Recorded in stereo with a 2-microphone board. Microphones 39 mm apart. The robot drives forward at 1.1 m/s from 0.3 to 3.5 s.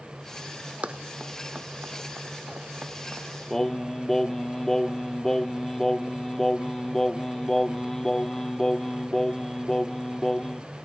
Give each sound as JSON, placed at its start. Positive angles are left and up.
{"t": 0.8, "sound": "running footsteps", "side_deg": -30}
{"t": 3.5, "sound": "singing", "side_deg": 10}